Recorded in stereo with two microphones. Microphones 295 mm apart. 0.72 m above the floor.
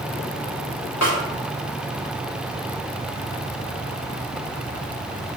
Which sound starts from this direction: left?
A snare drum, at 1.0 s.